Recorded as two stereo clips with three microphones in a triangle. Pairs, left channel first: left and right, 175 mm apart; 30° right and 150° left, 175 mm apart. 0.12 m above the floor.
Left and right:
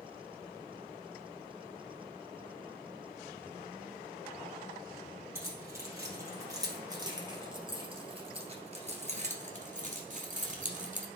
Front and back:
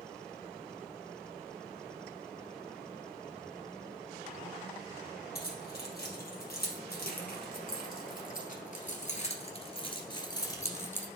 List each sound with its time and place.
5.3 s keys jangling: 15° right, 3 m; by 11.1 s 105° right, 1.6 m